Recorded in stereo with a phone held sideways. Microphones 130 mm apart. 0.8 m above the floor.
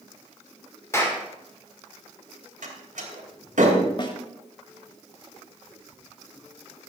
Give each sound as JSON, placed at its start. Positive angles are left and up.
{"t": 0.9, "sound": "a clap", "side_deg": 20, "distance_m": 2.5}
{"t": 2.6, "sound": "a door slam", "side_deg": -85, "distance_m": 3.0}
{"t": 4.0, "sound": "a snare drum", "side_deg": 35, "distance_m": 1.5}